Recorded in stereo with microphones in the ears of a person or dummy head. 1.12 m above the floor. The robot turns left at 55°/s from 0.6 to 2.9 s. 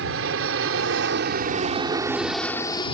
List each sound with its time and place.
0.0 s an aircraft: 70° right (ahead or behind); by 3.0 s 30° left (ahead or behind)